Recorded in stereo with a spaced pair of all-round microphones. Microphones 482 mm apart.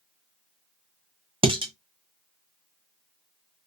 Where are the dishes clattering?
10° right (ahead or behind), 0.8 m.